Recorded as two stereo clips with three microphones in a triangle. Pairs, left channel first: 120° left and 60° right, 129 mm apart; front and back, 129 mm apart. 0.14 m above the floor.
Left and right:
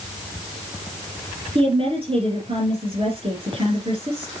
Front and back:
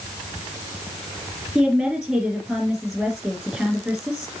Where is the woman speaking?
95° right, 4 m.